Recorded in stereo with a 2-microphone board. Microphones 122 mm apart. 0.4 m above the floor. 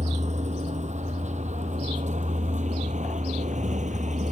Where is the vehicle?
75° right (ahead or behind); by 4.3 s 85° right.